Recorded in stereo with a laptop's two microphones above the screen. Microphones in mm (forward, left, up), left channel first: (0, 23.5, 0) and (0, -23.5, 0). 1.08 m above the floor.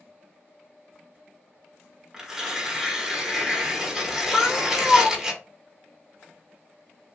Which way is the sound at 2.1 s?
10° right (ahead or behind).